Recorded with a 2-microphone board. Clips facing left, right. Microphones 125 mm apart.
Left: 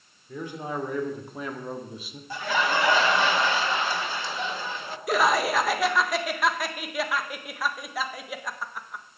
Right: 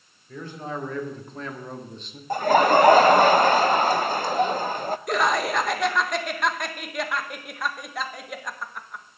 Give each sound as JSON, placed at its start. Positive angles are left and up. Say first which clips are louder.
{"t": 0.3, "sound": "a man speaking", "louder": "left 1 dB", "side_deg": 15, "distance_m": 2.5}
{"t": 2.3, "sound": "laughter", "louder": "right 9 dB", "side_deg": -45, "distance_m": 0.6}
{"t": 5.1, "sound": "laughter", "louder": "left 2 dB", "side_deg": 0, "distance_m": 1.1}